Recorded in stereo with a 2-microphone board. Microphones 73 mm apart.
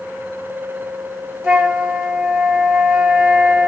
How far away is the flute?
About 1.0 m.